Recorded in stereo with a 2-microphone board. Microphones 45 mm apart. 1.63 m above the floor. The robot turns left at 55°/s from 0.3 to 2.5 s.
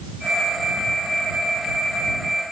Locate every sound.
Only background noise.